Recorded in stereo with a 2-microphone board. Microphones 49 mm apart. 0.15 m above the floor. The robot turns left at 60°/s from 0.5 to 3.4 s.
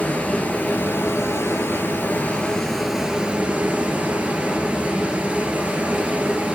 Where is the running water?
140° left, 1.8 m; by 6.6 s 35° right, 1.8 m.